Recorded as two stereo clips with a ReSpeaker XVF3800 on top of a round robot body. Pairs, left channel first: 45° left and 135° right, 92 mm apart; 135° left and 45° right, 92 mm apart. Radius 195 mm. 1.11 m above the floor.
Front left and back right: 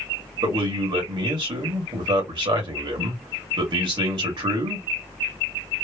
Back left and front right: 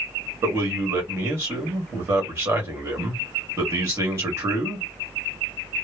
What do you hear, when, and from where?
0.4 s a man speaking: 105° right, 1.8 m